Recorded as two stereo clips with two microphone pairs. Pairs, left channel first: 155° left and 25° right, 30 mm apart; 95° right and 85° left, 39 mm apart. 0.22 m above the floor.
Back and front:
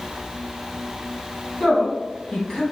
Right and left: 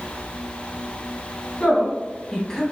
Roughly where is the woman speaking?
Behind right.